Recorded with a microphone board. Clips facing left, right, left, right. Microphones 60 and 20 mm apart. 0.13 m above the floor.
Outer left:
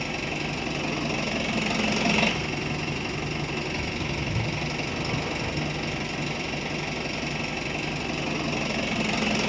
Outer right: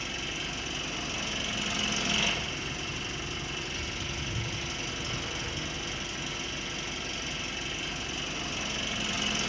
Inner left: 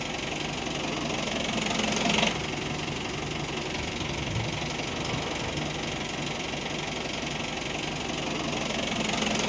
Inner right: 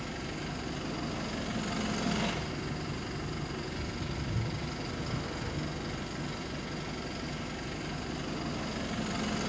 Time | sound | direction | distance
0.0 | an engine running | 60° left (ahead or behind) | 1.2 m